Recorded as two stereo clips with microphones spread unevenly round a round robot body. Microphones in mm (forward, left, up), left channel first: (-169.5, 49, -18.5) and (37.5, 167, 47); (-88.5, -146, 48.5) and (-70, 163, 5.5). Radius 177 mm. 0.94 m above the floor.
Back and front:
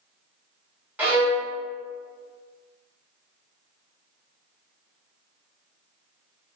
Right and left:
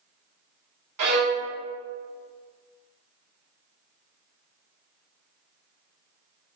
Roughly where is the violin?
Left.